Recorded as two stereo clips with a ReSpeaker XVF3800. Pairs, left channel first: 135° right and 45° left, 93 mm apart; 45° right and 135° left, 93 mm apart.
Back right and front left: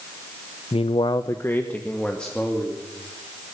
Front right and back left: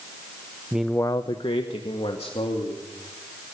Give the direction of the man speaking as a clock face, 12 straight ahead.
5 o'clock.